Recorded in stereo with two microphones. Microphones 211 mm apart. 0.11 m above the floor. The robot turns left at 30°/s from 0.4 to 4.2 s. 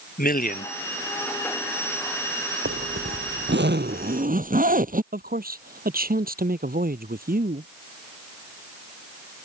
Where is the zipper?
90° right; by 5.0 s 135° right.